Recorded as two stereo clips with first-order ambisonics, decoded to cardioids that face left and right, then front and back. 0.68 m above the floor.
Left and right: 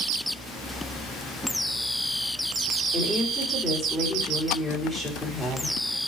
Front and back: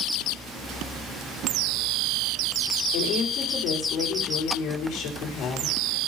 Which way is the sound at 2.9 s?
5° left.